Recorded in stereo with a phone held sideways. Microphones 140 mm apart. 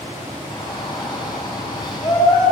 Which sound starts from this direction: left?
A shout, at 0.5 s.